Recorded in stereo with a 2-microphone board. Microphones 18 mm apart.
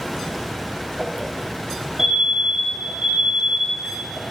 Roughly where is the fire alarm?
Right.